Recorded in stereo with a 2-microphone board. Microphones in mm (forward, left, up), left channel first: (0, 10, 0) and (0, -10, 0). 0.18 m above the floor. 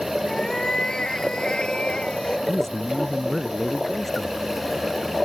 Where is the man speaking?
20° left (ahead or behind).